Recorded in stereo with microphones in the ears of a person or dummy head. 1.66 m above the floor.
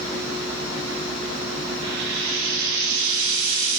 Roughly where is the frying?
Right.